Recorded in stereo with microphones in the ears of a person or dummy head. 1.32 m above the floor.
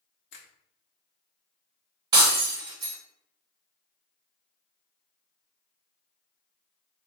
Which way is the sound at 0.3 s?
60° left (ahead or behind).